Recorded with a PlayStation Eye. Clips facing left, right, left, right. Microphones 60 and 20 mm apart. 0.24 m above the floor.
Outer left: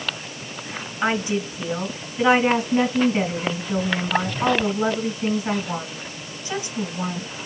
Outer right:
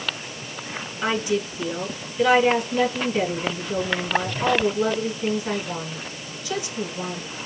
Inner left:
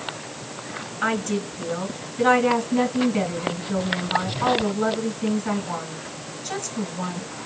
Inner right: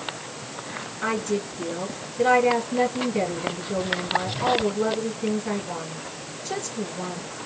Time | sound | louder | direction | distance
1.0 | a woman speaking | outer left 1 dB, inner left 2 dB | 25° left (ahead or behind) | 2 m